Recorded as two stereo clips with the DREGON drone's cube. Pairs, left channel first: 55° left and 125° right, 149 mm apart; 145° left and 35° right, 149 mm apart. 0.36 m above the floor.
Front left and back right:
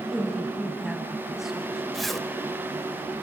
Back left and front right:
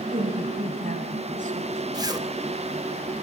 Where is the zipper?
30° right, 1.1 m.